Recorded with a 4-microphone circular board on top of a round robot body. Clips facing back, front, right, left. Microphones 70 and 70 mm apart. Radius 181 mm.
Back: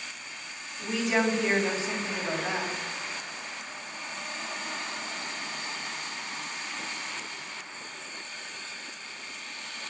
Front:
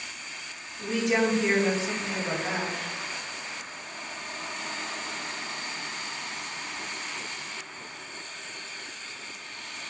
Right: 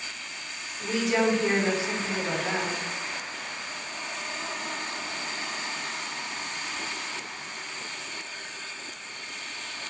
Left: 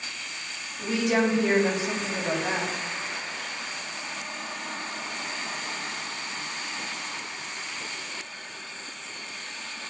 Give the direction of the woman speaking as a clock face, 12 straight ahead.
9 o'clock.